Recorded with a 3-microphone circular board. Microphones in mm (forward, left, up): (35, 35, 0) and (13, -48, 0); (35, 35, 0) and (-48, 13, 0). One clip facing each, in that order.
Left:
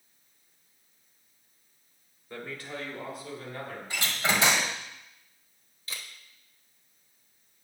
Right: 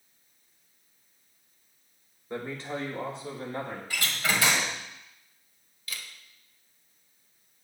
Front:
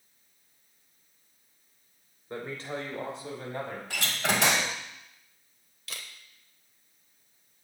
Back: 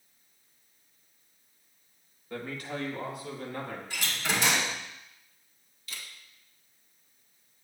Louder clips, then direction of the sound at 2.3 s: Right 5 dB, front 1 dB; 40° right.